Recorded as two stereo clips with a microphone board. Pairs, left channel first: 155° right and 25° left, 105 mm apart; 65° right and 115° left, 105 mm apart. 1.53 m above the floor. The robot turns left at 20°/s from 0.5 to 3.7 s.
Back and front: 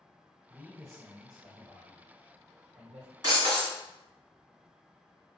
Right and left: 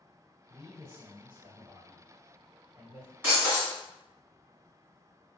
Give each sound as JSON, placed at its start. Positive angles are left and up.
{"t": 0.5, "sound": "a man speaking", "azimuth_deg": 90, "distance_m": 1.4}
{"t": 3.2, "sound": "breaking glass", "azimuth_deg": 50, "distance_m": 1.8}